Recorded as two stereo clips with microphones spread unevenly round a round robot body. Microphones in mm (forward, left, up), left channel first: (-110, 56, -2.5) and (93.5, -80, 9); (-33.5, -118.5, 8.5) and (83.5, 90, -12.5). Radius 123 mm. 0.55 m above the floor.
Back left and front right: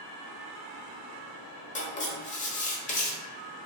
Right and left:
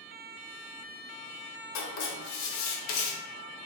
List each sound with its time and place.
1.8 s writing: 150° right, 0.8 m